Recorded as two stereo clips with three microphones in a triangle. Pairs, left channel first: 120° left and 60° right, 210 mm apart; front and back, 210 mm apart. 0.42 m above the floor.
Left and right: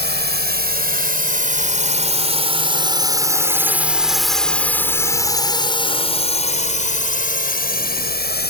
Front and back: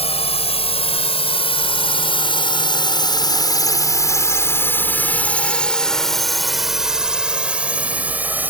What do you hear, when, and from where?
0.0 s a drone: 55° right; by 8.5 s 100° left